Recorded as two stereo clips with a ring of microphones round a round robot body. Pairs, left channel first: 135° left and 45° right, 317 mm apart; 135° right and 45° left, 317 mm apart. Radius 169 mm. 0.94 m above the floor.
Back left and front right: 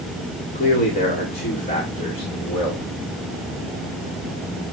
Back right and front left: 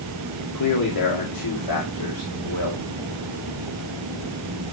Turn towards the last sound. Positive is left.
turn(degrees=-150)